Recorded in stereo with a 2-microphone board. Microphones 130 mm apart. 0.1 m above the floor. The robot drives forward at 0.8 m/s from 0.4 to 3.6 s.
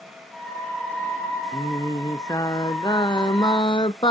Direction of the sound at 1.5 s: 25° left (ahead or behind).